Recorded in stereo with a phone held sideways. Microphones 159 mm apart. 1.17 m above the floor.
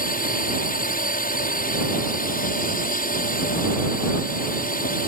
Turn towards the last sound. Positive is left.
turn(degrees=60)  # may be behind; listen again after turning